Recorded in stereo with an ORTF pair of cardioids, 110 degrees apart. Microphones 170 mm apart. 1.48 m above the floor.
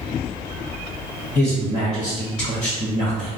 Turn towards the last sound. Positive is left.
turn(degrees=35)